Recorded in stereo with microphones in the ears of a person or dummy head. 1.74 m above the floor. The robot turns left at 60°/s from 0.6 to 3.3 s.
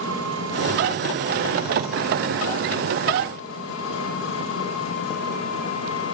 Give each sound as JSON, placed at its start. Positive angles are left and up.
{"t": 0.0, "sound": "an engine running", "azimuth_deg": -100, "distance_m": 8.0}